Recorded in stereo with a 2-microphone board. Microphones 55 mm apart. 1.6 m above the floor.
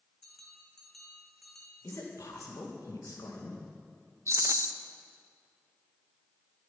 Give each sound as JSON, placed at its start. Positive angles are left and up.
{"t": 0.2, "sound": "a bell", "side_deg": 5, "distance_m": 2.5}
{"t": 1.8, "sound": "a man speaking", "side_deg": 85, "distance_m": 2.5}
{"t": 4.3, "sound": "a rattle", "side_deg": -60, "distance_m": 0.6}